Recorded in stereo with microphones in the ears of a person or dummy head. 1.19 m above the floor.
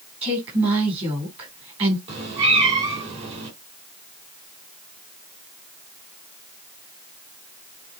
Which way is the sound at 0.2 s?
25° right (ahead or behind).